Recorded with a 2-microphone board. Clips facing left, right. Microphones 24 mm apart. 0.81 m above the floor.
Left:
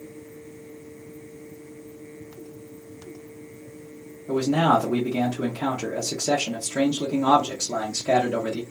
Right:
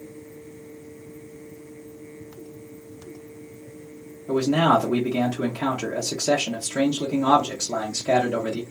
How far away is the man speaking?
About 0.9 m.